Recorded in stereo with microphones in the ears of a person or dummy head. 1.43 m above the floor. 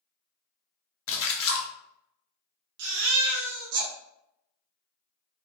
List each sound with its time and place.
1.1 s a splash: 65° left (ahead or behind), 0.7 m
2.8 s a baby crying: 65° right (ahead or behind), 1.0 m